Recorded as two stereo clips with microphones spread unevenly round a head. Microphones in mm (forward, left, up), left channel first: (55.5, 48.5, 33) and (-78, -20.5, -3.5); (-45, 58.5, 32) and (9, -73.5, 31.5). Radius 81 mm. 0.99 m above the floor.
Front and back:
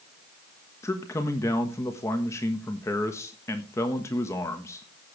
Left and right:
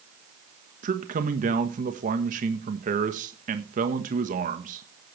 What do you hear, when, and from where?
0.8 s a man speaking: 50° right, 1.3 m